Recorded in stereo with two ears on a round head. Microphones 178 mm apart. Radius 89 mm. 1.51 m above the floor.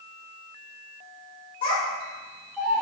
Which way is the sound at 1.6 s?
25° left (ahead or behind).